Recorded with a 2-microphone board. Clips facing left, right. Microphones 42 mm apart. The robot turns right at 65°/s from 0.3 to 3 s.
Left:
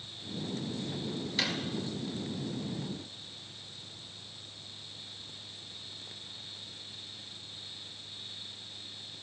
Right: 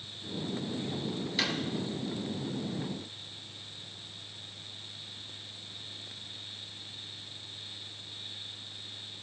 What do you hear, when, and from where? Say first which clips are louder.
1.4 s a drawer: right 1 dB; 5° right (ahead or behind), 1.6 m; by 1.6 s 10° left (ahead or behind), 1.6 m